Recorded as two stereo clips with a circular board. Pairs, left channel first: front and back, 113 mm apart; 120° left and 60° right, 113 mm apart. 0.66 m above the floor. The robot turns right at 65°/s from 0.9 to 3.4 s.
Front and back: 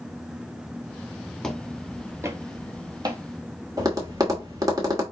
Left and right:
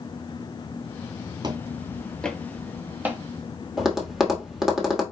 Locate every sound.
1.4 s footsteps: 85° right, 0.8 m; by 3.2 s 125° right, 1.3 m
3.8 s tapping: 145° right, 1.2 m